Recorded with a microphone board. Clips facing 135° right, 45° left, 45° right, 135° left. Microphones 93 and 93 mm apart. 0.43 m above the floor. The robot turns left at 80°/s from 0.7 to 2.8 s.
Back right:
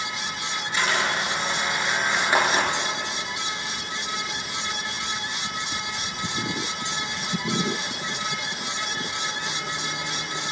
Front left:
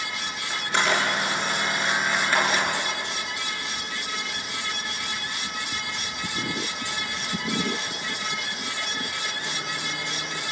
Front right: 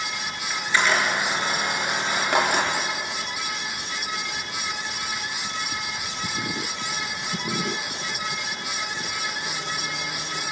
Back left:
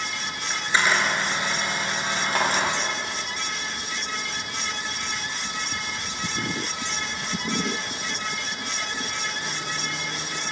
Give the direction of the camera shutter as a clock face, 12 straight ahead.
10 o'clock.